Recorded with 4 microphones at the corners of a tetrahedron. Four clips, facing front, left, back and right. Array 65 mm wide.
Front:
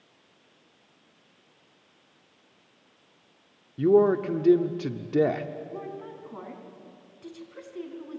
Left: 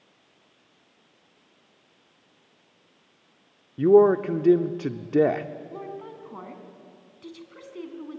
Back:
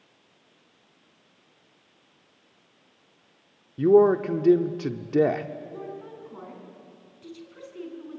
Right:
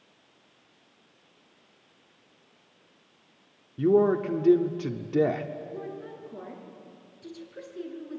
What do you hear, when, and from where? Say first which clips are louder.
3.8 s a man speaking: left 5 dB, back 3 dB; 115° left, 0.7 m
5.7 s a woman speaking: left 1 dB, even; 70° left, 4.5 m